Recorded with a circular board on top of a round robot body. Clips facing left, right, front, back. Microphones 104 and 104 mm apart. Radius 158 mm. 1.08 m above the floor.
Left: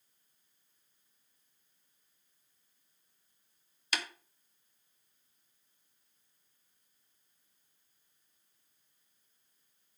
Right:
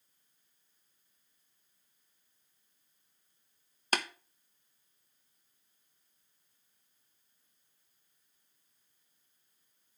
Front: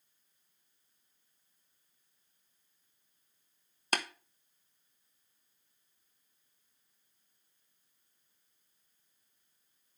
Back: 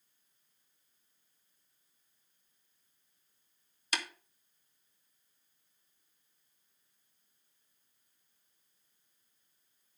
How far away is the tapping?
About 1.1 m.